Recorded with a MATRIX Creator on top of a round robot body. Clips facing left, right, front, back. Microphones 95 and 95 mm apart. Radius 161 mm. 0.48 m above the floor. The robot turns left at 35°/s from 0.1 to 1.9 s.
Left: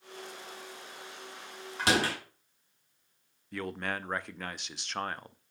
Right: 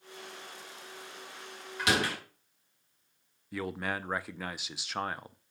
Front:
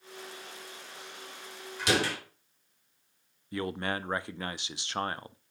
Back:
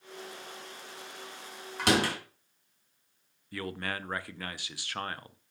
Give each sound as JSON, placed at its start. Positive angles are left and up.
{"t": 1.8, "sound": "a door slam", "azimuth_deg": 150, "distance_m": 4.0}
{"t": 3.5, "sound": "a man speaking", "azimuth_deg": -10, "distance_m": 0.7}